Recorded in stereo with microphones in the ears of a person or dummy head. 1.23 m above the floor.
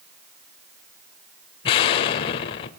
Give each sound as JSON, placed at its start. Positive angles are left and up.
{"t": 1.6, "sound": "an explosion", "side_deg": 30, "distance_m": 1.1}